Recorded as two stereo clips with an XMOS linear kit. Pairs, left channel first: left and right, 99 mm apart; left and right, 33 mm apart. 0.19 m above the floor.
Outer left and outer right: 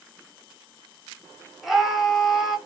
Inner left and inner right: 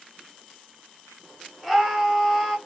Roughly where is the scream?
Centre.